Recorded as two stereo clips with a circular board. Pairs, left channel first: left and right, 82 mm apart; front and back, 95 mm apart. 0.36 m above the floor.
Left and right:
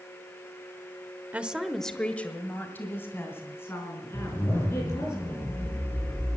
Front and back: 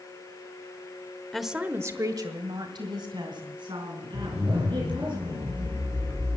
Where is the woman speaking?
80° right, 0.9 m; by 5.1 s 145° left, 5 m.